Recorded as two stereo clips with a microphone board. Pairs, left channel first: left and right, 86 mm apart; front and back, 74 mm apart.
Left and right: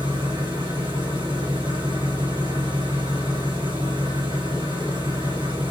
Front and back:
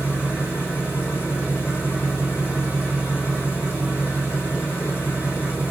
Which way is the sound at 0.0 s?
110° right.